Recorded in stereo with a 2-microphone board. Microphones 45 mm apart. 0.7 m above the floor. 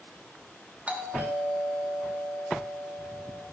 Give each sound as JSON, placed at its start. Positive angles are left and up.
{"t": 0.9, "sound": "a doorbell", "side_deg": -30, "distance_m": 1.2}